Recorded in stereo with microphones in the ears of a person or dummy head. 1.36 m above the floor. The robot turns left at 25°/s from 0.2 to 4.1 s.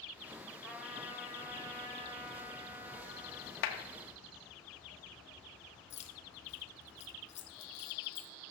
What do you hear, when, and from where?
0.6 s a trumpet: 5° left, 1.9 m; by 3.6 s 70° right, 1.9 m
3.6 s a clap: 70° left (ahead or behind), 1.2 m; by 3.8 s 65° left (ahead or behind), 1.2 m
5.9 s keys jangling: 40° left (ahead or behind), 0.9 m